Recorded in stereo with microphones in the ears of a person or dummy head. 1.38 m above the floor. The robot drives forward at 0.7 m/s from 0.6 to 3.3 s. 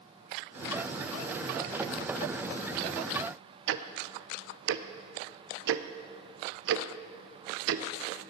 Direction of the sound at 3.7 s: 80° right.